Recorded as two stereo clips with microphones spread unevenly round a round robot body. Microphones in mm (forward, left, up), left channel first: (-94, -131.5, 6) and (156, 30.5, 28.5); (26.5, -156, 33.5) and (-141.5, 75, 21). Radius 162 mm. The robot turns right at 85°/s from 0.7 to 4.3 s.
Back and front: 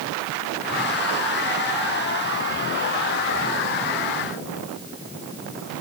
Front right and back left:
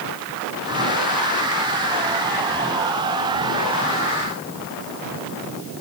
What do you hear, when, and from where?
Only background noise.